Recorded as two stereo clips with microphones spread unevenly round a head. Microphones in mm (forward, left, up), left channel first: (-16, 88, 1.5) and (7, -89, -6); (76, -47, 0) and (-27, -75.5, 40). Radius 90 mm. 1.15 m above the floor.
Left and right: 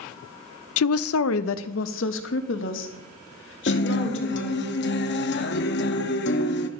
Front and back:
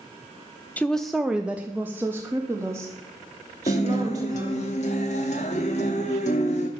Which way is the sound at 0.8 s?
95° left.